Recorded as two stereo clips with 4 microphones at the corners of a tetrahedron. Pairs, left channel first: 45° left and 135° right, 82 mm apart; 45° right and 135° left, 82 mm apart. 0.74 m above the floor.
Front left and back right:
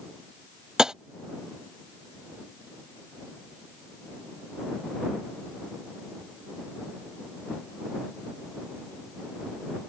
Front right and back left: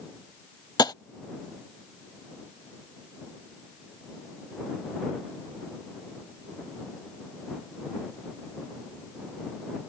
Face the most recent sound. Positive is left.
turn(degrees=-55)